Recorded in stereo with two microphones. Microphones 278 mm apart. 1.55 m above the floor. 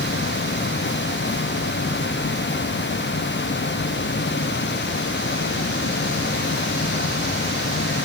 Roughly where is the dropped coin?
I don't hear a dropped coin.